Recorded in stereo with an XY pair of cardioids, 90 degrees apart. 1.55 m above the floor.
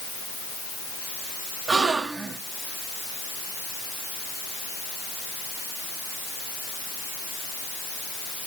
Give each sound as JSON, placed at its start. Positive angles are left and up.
{"t": 1.7, "sound": "a gasp", "azimuth_deg": -50, "distance_m": 1.6}